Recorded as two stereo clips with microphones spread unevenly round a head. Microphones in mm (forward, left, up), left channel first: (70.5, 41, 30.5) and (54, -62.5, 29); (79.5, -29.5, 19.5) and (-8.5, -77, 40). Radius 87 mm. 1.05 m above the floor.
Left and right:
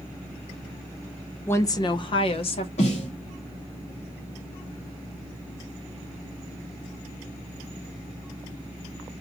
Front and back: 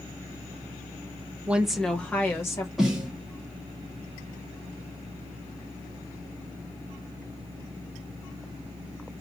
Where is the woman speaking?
125° left, 0.8 m; by 2.7 s 85° left, 1.5 m.